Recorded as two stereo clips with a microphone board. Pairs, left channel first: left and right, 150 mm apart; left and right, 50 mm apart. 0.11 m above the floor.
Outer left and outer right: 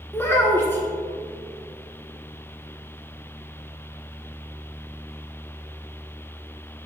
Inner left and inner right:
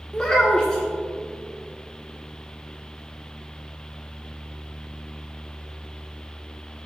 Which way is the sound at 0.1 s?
15° left (ahead or behind).